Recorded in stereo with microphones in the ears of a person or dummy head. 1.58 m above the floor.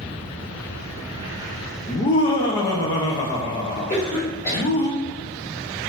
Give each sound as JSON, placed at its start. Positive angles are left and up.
{"t": 1.9, "sound": "laughter", "side_deg": 25, "distance_m": 0.6}
{"t": 3.9, "sound": "a cough", "side_deg": 40, "distance_m": 1.3}